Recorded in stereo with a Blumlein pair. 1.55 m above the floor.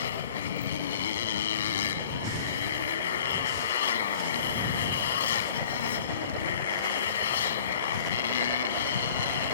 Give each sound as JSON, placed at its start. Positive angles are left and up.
{"t": 0.0, "sound": "a motorcycle", "azimuth_deg": 65}